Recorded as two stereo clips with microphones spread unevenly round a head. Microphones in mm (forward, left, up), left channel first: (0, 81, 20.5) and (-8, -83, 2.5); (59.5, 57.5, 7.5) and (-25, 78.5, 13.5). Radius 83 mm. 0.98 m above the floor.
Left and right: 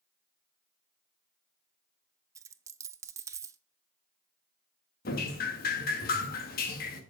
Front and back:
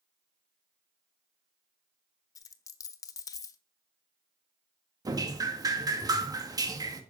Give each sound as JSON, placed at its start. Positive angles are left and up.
{"t": 2.4, "sound": "a dropped coin", "azimuth_deg": -25, "distance_m": 0.5}
{"t": 5.0, "sound": "dripping", "azimuth_deg": 120, "distance_m": 1.8}